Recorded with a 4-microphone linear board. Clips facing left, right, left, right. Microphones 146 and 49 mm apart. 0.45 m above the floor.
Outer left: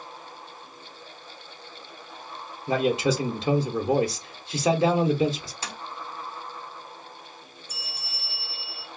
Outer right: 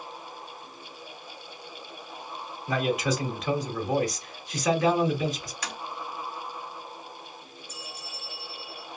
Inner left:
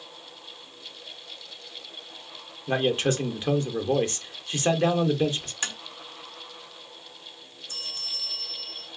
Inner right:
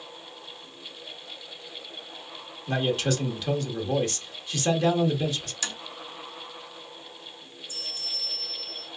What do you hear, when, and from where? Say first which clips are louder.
2.7 s a man speaking: outer left 4 dB, inner left 2 dB; 30° left (ahead or behind), 0.8 m
5.6 s tapping: outer right 1 dB, inner left 3 dB; 30° left (ahead or behind), 0.9 m
7.7 s a bell: outer right 2 dB, inner left 1 dB; 80° left, 0.6 m